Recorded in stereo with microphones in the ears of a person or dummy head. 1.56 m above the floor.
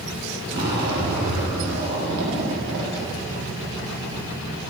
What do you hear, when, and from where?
0.5 s a zipper: 60° right (ahead or behind), 2.0 m